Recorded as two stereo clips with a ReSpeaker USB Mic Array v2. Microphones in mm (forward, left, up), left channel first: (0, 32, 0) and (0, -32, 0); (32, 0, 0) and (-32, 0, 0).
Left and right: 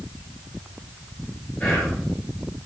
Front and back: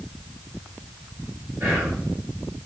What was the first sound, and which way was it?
Whispering, 155° left.